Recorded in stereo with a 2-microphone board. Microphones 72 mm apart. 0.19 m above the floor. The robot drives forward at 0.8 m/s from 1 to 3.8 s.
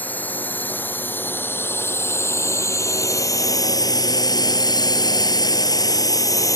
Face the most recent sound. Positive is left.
turn(degrees=50)  # may be behind; listen again after turning